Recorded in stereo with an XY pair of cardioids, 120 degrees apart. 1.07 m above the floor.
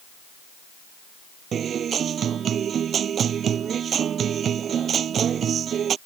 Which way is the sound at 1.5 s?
45° right.